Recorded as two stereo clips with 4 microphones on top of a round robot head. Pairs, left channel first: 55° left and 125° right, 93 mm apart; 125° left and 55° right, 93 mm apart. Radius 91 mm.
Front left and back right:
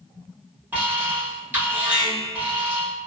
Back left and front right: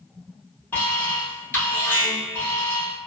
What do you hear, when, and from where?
0.7 s an alarm: 175° left, 1.3 m